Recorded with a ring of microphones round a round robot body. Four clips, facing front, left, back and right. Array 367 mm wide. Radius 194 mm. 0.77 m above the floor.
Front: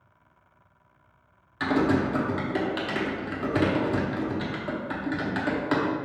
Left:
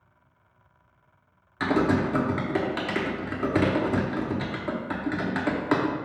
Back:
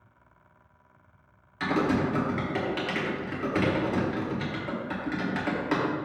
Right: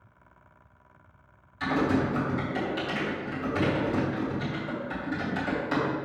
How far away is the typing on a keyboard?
About 1.1 m.